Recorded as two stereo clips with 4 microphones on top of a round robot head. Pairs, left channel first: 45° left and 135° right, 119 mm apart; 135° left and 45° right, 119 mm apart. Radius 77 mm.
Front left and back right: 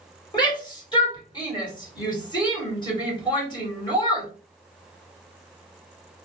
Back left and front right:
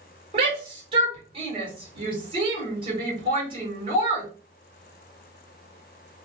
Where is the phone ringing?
I don't hear a phone ringing.